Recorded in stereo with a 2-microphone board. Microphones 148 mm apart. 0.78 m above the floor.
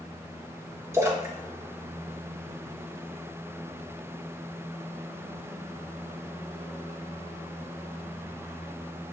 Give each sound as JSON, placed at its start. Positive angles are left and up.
{"t": 0.9, "sound": "a splash", "side_deg": -20, "distance_m": 0.9}